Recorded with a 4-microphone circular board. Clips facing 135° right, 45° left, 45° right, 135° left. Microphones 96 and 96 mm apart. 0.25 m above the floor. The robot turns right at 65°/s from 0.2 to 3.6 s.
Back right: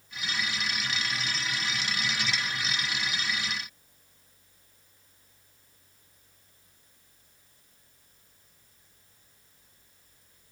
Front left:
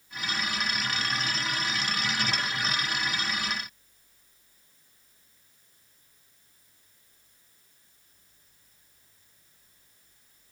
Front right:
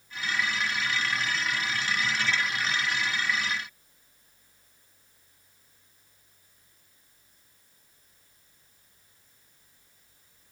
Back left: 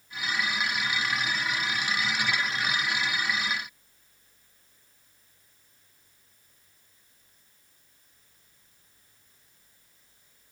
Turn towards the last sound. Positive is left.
No sound to turn to.